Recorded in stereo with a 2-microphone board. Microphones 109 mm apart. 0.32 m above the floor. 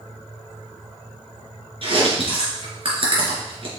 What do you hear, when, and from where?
1.8 s chewing: 55° right (ahead or behind), 3 m